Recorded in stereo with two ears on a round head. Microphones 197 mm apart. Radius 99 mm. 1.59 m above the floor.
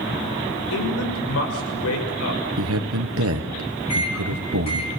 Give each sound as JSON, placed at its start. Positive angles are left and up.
{"t": 0.7, "sound": "a man speaking", "side_deg": 85, "distance_m": 6.0}
{"t": 2.6, "sound": "a man speaking", "side_deg": -80, "distance_m": 1.3}
{"t": 3.9, "sound": "a microwave", "side_deg": 30, "distance_m": 5.5}